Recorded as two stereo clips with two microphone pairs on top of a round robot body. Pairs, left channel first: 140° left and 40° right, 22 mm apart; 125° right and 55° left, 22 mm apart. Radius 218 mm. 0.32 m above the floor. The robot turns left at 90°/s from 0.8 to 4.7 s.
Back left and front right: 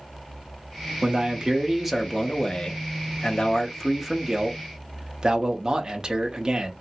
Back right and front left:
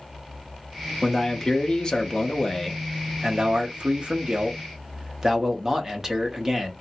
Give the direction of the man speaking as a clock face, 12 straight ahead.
1 o'clock.